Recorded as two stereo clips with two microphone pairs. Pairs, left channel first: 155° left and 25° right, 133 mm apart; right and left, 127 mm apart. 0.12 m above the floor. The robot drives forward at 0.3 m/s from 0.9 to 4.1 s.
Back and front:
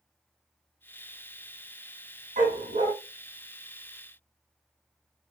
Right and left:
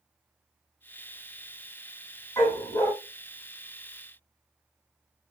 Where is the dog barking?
30° right, 1.3 m; by 2.9 s 35° right, 1.2 m.